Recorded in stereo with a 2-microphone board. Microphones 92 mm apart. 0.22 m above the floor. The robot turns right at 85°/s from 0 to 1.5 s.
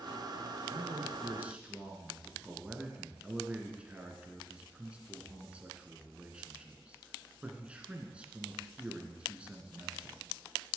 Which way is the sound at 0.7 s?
85° right.